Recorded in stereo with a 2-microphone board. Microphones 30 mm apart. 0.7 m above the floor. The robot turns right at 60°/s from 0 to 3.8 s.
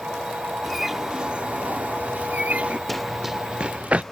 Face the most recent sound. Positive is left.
turn(degrees=-45)  # may be behind; listen again after turning